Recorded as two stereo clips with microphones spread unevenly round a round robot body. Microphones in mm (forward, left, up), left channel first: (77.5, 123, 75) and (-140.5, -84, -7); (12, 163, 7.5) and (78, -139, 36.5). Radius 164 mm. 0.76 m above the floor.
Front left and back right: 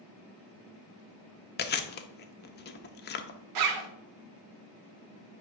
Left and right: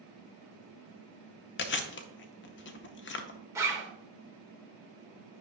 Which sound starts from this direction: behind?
A zipper, at 3.5 s.